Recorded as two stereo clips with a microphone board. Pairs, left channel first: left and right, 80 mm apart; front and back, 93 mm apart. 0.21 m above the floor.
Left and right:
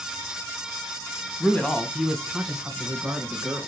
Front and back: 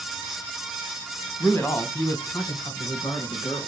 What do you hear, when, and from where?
1.4 s a man speaking: 40° left, 1.5 m; by 3.7 s 25° right, 3 m